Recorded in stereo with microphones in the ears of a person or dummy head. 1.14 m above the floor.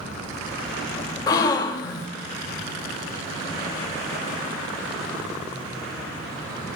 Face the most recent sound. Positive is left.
turn(degrees=20)  # may be behind; listen again after turning